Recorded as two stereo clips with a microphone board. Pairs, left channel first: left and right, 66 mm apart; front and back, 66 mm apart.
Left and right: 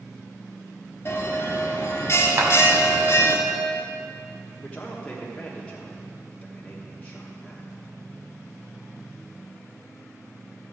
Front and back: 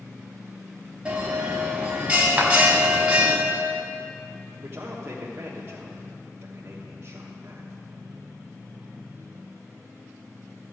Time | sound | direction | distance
1.1 | a bell | 115° left | 1.5 m
2.4 | a clap | 115° right | 1.9 m
4.6 | a man speaking | 155° left | 1.2 m